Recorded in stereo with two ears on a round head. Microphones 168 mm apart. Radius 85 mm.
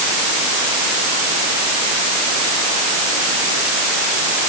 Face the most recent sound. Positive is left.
No sound to turn to.